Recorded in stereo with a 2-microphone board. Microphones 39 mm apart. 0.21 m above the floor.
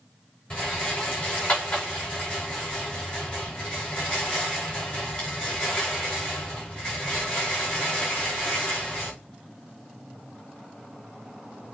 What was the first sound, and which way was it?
A rattle, 30° left (ahead or behind).